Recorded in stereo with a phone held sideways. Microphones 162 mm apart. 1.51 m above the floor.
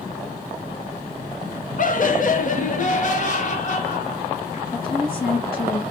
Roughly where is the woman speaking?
Left.